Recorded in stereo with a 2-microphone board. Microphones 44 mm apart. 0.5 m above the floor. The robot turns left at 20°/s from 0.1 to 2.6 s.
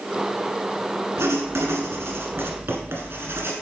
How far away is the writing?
About 1.4 m.